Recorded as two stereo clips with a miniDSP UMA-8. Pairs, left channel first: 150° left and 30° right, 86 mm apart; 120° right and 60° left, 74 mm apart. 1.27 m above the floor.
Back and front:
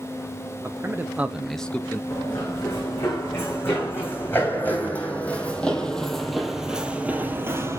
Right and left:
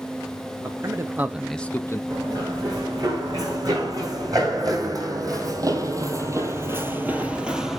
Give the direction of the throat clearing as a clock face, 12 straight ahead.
I don't hear throat clearing.